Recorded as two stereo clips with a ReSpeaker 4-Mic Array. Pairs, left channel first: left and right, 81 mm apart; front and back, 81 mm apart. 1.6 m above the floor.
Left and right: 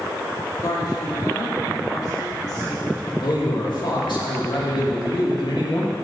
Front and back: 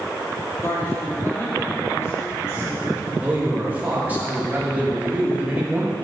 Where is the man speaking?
110° left, 2.5 m.